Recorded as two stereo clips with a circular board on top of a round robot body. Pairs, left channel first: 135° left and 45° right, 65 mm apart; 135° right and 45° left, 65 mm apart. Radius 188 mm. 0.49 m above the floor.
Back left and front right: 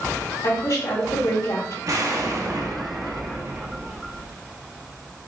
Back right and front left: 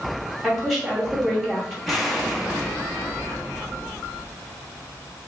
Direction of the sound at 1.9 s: 40° right.